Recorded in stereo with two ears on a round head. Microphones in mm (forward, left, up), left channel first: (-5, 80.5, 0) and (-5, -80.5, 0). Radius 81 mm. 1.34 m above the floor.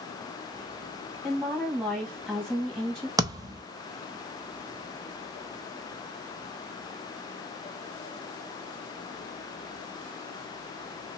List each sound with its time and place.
1.2 s a woman speaking: centre (ahead or behind), 1.5 m
3.2 s a thud: 20° right (ahead or behind), 0.7 m